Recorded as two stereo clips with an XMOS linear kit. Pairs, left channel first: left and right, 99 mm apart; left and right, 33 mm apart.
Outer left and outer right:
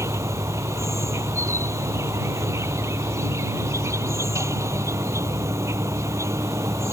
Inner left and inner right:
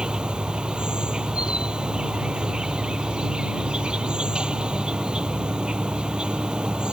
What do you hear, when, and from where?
0.0 s an insect: 30° right (ahead or behind)